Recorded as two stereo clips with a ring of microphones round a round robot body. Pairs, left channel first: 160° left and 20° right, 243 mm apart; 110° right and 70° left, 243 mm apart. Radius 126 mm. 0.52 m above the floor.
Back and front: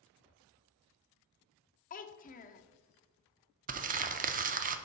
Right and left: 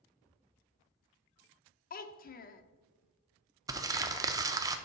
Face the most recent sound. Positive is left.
turn(degrees=0)